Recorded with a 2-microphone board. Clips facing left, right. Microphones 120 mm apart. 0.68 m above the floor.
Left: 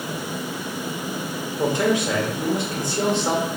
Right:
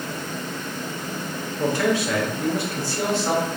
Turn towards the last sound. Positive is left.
turn(degrees=20)  # may be behind; listen again after turning